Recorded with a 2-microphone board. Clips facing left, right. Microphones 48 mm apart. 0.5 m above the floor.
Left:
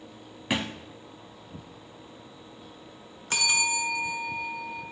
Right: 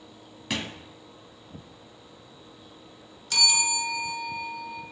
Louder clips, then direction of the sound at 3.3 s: Even; 35° left (ahead or behind).